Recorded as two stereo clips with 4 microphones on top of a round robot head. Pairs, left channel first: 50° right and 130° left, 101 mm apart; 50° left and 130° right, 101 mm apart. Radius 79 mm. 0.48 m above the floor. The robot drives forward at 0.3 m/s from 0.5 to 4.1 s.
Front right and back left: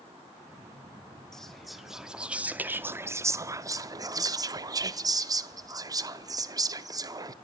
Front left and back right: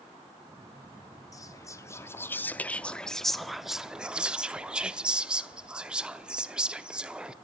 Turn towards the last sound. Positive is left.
turn(degrees=155)